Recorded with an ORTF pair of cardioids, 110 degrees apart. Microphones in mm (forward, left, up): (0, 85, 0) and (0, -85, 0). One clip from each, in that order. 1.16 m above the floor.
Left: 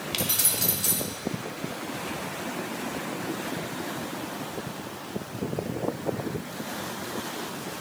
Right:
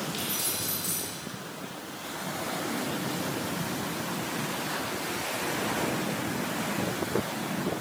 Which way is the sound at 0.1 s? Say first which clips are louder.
Left 4 dB; 70° left.